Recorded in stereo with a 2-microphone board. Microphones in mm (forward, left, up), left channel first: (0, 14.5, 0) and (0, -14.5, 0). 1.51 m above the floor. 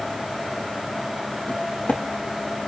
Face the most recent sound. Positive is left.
turn(degrees=45)  # may be behind; listen again after turning